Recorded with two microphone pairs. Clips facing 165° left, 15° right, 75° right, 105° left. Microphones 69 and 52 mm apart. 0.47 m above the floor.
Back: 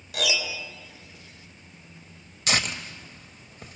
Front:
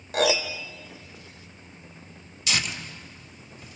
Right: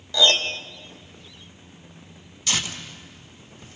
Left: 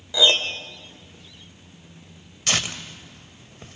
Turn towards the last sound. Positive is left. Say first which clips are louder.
# back 2 dB, left 2 dB
turn(degrees=130)